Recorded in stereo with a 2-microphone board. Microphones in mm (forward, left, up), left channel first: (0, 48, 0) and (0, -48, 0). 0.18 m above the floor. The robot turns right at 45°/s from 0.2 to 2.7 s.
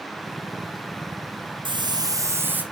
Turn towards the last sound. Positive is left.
turn(degrees=-15)